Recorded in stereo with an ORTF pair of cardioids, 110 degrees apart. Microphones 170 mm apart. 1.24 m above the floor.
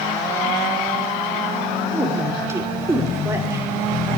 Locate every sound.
1.9 s a woman speaking: 15° right, 3 m